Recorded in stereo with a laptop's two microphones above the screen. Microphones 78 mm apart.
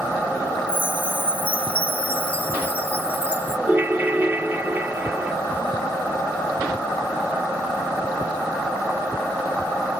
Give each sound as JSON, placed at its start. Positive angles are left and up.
{"t": 0.7, "sound": "a chime", "side_deg": 20}
{"t": 3.7, "sound": "a ringtone", "side_deg": -25}